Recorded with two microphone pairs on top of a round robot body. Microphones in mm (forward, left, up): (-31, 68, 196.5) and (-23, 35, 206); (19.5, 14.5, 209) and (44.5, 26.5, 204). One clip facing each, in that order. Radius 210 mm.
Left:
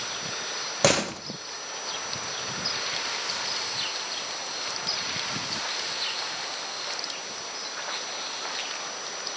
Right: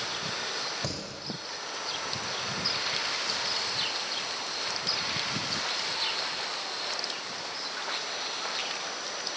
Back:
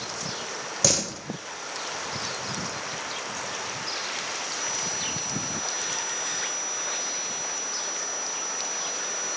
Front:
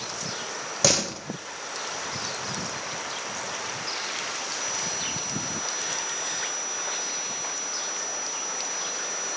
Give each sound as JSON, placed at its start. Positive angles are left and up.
{"t": 0.8, "sound": "a door slam", "azimuth_deg": 100, "distance_m": 0.9}